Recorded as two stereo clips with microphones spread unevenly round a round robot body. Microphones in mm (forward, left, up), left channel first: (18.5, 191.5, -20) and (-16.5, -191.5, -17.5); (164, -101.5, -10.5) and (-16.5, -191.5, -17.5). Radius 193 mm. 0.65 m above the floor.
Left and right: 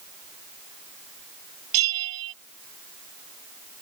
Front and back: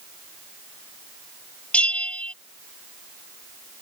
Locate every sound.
1.7 s a bell: 55° right